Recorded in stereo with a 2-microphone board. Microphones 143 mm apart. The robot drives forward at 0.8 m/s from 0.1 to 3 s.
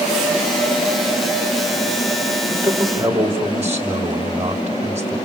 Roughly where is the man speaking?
Centre.